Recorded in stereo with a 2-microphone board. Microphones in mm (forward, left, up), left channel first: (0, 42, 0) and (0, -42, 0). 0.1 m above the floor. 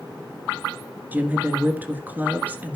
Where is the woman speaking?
20° right (ahead or behind), 1.6 m.